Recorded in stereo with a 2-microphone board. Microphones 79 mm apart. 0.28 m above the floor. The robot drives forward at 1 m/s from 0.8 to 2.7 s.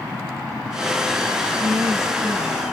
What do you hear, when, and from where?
1.6 s a woman speaking: 55° right (ahead or behind), 2.5 m; by 2.6 s 40° right (ahead or behind), 3 m